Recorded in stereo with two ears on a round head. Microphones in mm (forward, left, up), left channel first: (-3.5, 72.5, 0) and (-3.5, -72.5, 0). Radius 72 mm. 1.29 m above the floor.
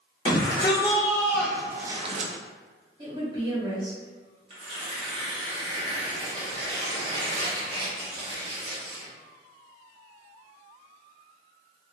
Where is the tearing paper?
40° right (ahead or behind), 1.1 m.